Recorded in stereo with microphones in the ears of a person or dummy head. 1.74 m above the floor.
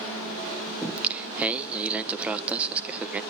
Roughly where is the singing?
Centre.